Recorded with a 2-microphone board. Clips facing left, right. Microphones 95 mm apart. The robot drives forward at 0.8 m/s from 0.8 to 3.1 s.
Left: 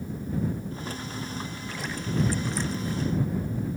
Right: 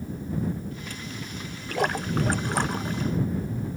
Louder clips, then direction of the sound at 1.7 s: Right 7 dB; 65° right (ahead or behind).